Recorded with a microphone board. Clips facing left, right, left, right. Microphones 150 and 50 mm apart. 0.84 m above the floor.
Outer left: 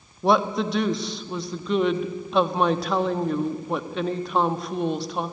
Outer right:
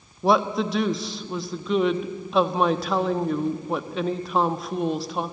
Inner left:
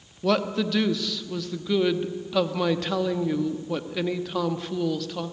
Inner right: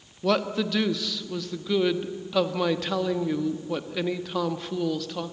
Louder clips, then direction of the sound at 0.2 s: Even, inner left 1 dB; centre (ahead or behind).